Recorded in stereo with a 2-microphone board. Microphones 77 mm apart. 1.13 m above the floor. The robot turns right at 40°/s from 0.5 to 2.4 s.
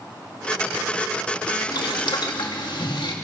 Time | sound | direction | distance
1.6 | boiling | 70° left | 1.9 m